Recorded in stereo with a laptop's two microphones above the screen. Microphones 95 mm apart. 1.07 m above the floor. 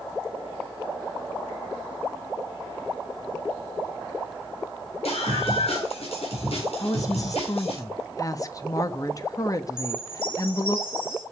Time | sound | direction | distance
5.0 | a scream | 80° left | 4 m
6.8 | a woman speaking | 35° left (ahead or behind) | 1.2 m
9.8 | a chime | 65° left (ahead or behind) | 4.5 m